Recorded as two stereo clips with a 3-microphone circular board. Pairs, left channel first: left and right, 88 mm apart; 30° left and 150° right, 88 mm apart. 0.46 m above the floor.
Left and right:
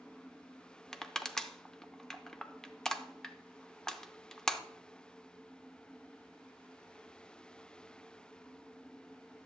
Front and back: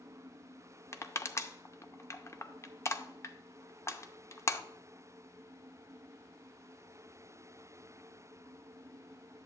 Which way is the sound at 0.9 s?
10° left.